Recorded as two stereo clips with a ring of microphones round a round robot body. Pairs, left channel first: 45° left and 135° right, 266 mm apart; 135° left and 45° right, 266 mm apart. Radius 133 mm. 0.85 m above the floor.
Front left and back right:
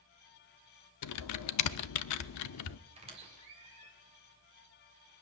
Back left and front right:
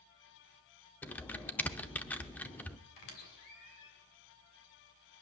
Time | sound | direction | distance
1.0 | typing on a keyboard | 50° left | 0.6 m
3.0 | a squeak | 155° left | 3 m